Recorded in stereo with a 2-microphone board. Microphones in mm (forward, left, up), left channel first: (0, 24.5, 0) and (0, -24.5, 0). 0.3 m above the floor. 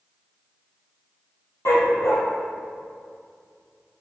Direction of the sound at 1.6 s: 65° left (ahead or behind).